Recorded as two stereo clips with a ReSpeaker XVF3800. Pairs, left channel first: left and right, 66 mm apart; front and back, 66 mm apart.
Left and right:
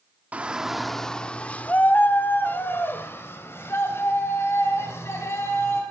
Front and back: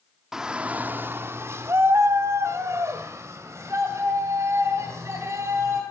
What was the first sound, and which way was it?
A shout, 110° right.